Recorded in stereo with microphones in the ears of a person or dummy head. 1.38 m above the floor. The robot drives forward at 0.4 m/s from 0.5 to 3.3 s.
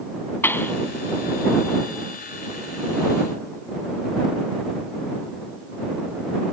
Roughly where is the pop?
Centre.